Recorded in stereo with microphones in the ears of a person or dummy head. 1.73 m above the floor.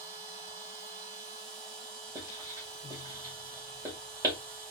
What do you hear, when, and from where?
0.0 s a machine running: 50° right (ahead or behind), 3 m
2.1 s writing: 15° right (ahead or behind), 1.9 m